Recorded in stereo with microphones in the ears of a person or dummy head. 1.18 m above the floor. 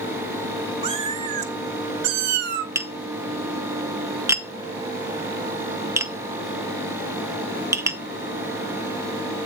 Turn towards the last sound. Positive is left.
turn(degrees=-25)  # may be behind; listen again after turning